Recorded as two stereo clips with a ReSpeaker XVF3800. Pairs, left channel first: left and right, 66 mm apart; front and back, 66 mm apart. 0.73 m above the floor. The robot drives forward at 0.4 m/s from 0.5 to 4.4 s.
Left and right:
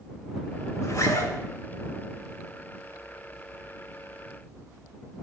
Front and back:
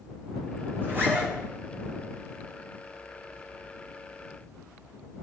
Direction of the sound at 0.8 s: 130° left.